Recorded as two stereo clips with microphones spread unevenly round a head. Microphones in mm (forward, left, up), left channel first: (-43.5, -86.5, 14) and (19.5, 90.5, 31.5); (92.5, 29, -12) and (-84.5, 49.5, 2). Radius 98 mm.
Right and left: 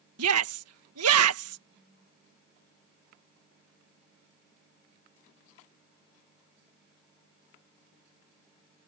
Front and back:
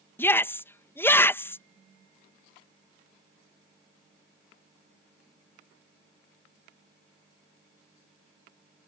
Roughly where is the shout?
Left.